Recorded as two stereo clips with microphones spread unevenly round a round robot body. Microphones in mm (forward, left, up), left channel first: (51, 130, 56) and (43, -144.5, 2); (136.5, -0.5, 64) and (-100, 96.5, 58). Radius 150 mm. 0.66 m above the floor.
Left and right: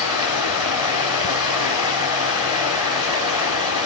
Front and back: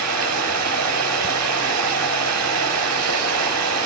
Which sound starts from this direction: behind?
Running water, at 0.0 s.